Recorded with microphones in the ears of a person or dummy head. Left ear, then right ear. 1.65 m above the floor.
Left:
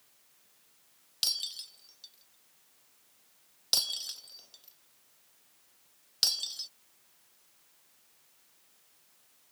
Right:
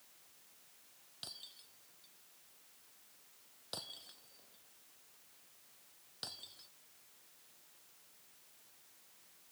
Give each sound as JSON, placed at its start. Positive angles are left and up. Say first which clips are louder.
{"t": 1.2, "sound": "breaking glass", "louder": "left 18 dB", "side_deg": 75}